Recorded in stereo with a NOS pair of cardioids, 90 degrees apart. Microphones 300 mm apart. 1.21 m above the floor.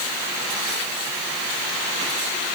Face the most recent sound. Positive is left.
No sound to turn to.